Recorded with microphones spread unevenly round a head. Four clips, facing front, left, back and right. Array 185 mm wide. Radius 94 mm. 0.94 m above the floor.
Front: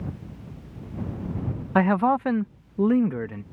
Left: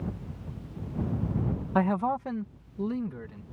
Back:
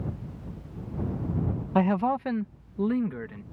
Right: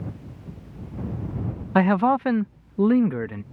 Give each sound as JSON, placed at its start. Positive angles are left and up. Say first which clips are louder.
{"t": 1.8, "sound": "a man speaking", "louder": "right 8 dB, front 4 dB", "azimuth_deg": -70}